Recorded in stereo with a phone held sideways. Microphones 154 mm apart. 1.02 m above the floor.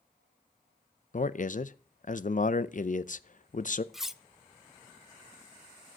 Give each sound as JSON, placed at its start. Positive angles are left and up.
{"t": 1.1, "sound": "a man speaking", "side_deg": 55, "distance_m": 0.6}
{"t": 3.9, "sound": "cutlery clinking", "side_deg": 0, "distance_m": 0.5}